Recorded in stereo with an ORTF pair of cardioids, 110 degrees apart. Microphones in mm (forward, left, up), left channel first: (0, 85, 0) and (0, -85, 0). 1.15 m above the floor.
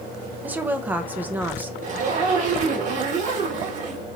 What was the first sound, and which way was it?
A woman speaking, 10° right.